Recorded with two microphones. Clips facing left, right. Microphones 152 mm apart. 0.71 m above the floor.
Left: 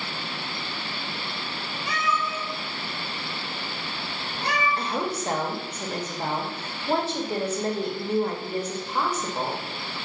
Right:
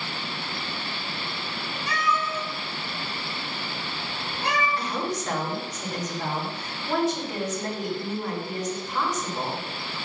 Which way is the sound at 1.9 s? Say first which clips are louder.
Right 1 dB; 20° left (ahead or behind).